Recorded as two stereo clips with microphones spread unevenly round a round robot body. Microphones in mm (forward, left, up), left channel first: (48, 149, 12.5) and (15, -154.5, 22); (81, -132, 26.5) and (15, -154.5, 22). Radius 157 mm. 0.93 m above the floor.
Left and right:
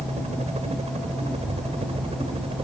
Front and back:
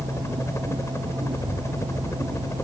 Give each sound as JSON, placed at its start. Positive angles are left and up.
{"t": 0.0, "sound": "a helicopter", "azimuth_deg": -30}